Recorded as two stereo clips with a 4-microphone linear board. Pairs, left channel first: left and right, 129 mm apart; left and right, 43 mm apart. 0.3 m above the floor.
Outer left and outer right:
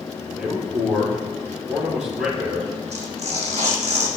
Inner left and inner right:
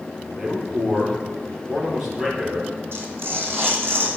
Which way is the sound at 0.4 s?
10° right (ahead or behind).